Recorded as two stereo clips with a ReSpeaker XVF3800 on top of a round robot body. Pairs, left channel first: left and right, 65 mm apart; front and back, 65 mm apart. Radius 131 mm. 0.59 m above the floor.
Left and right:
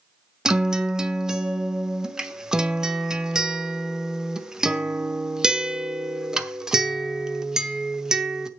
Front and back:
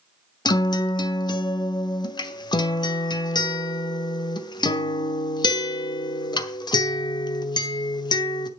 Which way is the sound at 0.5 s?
10° right.